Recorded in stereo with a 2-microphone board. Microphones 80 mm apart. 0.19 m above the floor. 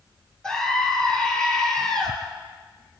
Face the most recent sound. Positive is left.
turn(degrees=10)  # may be behind; listen again after turning